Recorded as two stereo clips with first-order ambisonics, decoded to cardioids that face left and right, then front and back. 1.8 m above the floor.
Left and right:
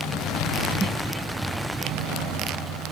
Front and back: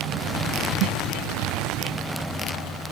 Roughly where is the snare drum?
Behind.